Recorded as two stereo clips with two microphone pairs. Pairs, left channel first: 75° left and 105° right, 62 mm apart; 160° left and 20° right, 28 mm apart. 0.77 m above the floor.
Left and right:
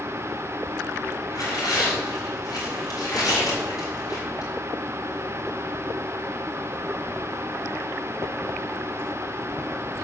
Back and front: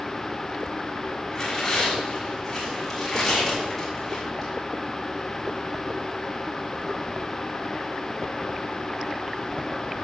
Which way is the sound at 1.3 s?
85° left.